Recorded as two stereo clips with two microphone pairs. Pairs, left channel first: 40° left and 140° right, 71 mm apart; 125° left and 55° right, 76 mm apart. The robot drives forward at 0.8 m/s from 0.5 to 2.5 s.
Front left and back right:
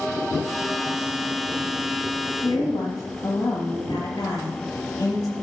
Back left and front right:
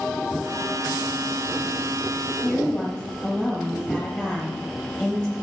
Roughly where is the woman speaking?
Ahead left.